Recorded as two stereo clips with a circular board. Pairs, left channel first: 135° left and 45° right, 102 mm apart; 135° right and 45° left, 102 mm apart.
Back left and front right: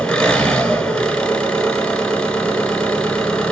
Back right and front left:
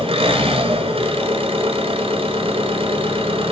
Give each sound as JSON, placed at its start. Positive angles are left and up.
{"t": 0.0, "sound": "an engine running", "azimuth_deg": 55, "distance_m": 1.2}